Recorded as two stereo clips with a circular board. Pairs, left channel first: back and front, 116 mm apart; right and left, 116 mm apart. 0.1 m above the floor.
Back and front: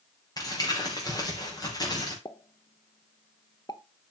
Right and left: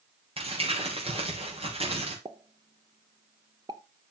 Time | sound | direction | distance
0.4 | crumpling | 125° left | 4.5 m
2.2 | a pop | 135° left | 0.7 m